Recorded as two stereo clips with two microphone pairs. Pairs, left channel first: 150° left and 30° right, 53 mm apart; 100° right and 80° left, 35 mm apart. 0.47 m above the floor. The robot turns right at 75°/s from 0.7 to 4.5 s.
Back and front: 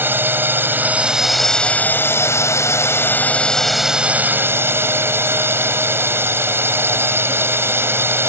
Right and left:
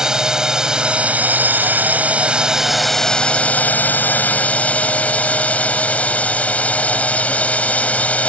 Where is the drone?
10° left; by 8.3 s 65° right.